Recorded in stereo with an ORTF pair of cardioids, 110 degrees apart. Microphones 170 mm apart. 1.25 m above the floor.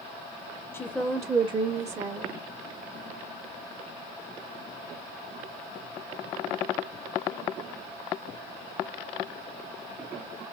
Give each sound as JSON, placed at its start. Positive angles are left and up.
{"t": 0.7, "sound": "a woman speaking", "azimuth_deg": 15, "distance_m": 0.6}